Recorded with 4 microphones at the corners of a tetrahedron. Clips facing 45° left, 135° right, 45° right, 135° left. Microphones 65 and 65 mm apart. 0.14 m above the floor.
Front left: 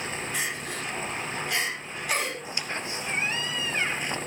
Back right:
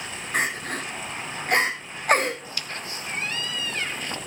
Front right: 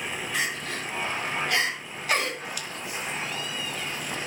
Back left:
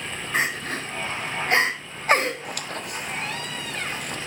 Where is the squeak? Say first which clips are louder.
Front left 2 dB, back left 3 dB; 110° left, 1.0 m.